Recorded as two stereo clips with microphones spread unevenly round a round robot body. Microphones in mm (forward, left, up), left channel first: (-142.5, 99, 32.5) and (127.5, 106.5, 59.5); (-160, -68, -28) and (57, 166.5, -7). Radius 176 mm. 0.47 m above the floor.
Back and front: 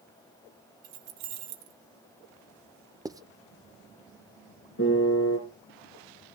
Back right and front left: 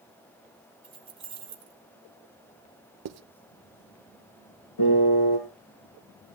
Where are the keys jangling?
30° right, 2 m.